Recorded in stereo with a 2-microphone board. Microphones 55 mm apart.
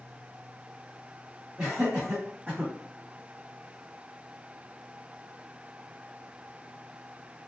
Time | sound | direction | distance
1.6 | laughter | 15° right (ahead or behind) | 1.7 m